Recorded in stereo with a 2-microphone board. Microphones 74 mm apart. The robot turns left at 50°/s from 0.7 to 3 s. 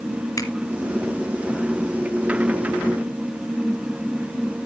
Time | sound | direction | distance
0.4 | a finger snap | 45° left (ahead or behind) | 1.8 m